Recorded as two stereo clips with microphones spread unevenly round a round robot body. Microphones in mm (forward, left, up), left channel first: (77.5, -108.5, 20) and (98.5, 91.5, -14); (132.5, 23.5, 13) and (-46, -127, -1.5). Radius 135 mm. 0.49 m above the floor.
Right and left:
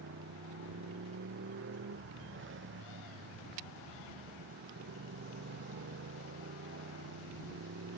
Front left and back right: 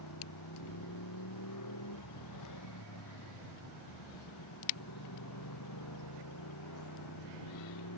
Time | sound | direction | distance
0.0 | a motorcycle | 60° left | ?